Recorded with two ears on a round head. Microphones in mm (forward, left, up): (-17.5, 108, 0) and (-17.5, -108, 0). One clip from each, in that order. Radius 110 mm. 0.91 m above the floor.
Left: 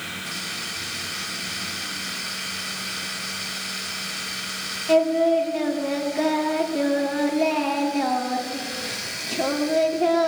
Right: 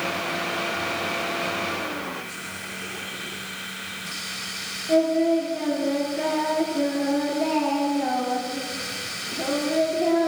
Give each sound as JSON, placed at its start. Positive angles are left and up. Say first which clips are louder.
{"t": 4.9, "sound": "singing", "louder": "left 2 dB", "side_deg": 50, "distance_m": 2.0}